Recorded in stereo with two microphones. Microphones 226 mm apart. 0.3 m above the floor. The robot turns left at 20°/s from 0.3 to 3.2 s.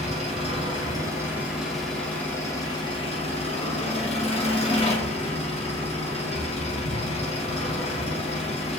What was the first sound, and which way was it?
An engine running, 150° right.